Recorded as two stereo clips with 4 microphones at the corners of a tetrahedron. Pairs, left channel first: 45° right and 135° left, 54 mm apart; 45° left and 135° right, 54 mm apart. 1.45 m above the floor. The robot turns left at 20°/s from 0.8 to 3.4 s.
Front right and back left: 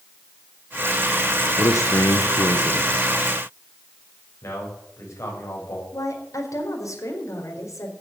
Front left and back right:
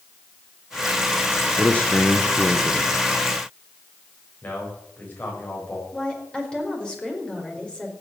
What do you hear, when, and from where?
1.6 s a man speaking: 20° right, 1.1 m; by 3.1 s 50° right, 1.1 m
4.4 s a man speaking: 15° right, 7.5 m
5.9 s a woman speaking: 30° right, 4.5 m